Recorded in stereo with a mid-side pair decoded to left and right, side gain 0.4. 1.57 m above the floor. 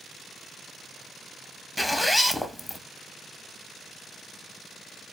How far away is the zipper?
About 0.6 m.